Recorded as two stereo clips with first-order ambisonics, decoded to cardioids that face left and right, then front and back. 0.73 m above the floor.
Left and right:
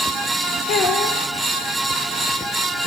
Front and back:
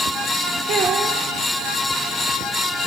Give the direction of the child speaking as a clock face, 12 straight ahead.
8 o'clock.